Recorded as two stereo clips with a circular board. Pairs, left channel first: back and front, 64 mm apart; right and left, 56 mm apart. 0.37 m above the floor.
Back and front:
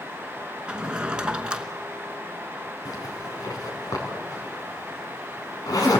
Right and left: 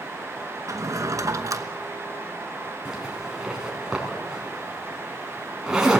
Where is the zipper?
170° left, 4 m.